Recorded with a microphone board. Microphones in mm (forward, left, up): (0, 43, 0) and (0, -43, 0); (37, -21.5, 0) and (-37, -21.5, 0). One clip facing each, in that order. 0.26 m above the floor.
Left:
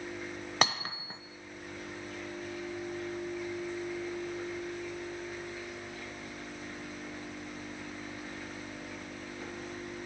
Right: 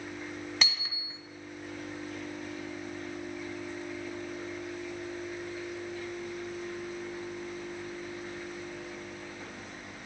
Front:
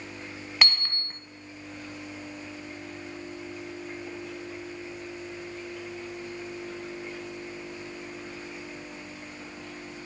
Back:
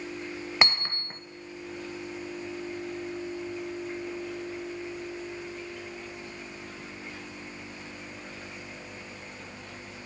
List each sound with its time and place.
0.6 s hammering: 120° left, 1.3 m